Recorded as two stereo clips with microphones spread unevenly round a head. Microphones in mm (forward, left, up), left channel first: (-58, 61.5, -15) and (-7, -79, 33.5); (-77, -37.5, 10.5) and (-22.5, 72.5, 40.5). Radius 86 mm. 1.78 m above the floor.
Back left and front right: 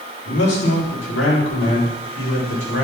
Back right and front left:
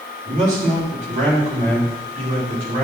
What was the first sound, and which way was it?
A man speaking, 90° left.